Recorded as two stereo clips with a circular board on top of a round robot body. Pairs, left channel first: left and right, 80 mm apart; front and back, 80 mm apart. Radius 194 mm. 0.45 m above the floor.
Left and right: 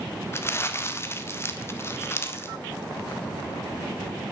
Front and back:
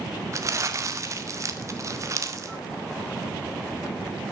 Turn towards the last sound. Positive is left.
turn(degrees=140)